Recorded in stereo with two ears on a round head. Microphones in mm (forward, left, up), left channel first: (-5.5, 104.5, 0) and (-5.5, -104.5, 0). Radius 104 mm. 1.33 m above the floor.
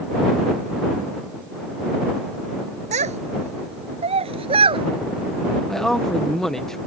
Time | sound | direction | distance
2.9 | a child speaking | 30° right (ahead or behind) | ?
5.7 | a man speaking | 5° left (ahead or behind) | ?